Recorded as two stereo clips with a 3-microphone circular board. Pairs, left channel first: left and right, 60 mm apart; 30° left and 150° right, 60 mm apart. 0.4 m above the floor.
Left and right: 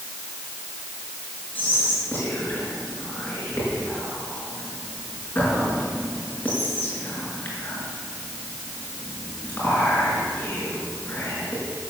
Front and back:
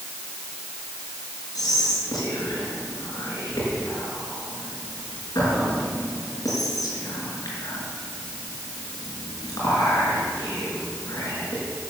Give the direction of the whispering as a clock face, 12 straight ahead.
11 o'clock.